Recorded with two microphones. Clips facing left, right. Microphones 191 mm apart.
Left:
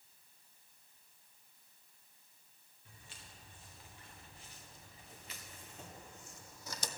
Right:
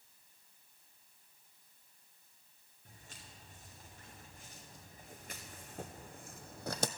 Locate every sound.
2.9 s footsteps: 50° right (ahead or behind), 3.5 m; by 6.9 s 75° right (ahead or behind), 0.5 m